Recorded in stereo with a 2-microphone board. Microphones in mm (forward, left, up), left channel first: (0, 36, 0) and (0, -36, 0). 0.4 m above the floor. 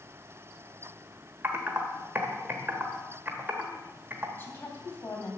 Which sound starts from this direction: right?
Typing on a keyboard, at 1.4 s.